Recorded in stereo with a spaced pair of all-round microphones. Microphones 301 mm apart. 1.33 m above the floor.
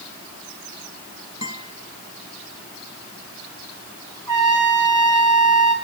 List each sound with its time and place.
1.4 s a guitar: 65° left (ahead or behind), 5.5 m
4.3 s a trumpet: 60° right (ahead or behind), 5 m